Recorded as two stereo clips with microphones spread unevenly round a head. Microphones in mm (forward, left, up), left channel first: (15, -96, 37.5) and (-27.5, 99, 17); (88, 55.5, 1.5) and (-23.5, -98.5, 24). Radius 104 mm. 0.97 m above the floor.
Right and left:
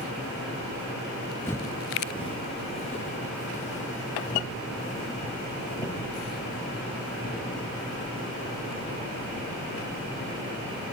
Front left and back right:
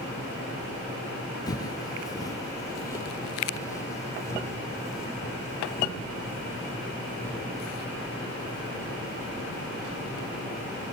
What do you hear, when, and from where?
1.5 s footsteps: 15° right, 1.0 m; by 10.8 s 25° right, 9.5 m